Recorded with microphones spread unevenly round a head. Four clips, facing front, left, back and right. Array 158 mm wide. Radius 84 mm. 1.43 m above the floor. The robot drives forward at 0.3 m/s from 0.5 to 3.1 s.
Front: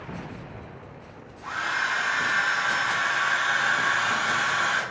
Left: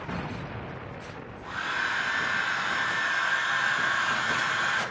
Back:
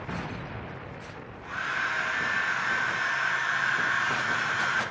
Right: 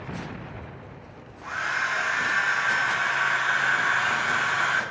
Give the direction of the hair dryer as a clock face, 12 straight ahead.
1 o'clock.